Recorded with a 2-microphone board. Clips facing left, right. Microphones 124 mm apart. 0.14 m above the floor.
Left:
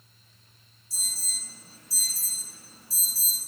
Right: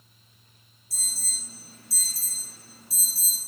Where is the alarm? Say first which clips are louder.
Right 1 dB; 70° right (ahead or behind), 2 m.